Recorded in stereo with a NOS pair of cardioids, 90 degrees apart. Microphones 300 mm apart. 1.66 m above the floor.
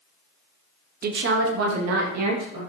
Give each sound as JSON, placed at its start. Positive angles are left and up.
{"t": 1.0, "sound": "a woman speaking", "azimuth_deg": -30, "distance_m": 0.8}